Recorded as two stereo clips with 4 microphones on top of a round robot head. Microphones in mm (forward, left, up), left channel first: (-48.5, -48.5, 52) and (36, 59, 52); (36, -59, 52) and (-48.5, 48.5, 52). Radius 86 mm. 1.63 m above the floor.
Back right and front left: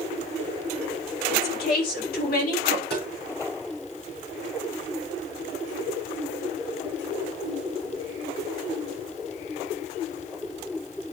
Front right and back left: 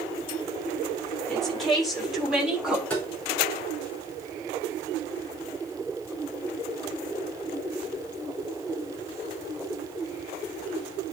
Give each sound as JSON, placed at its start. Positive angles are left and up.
{"t": 1.3, "sound": "a woman speaking", "azimuth_deg": -135, "distance_m": 3.5}
{"t": 2.9, "sound": "tapping", "azimuth_deg": -135, "distance_m": 4.5}